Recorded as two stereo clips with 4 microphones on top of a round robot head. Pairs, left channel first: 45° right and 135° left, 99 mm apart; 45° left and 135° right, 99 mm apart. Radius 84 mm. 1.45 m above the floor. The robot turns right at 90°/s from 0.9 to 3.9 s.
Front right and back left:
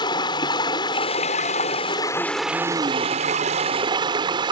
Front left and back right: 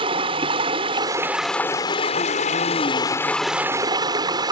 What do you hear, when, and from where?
0.0 s running water: 95° right; by 4.5 s 175° left